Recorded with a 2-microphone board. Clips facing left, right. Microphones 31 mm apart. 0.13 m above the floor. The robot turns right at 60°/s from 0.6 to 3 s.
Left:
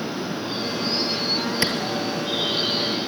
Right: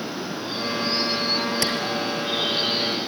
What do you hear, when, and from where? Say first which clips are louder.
1.6 s a clap: left 4 dB; 25° left (ahead or behind), 2.5 m; by 1.7 s 30° left (ahead or behind), 2.5 m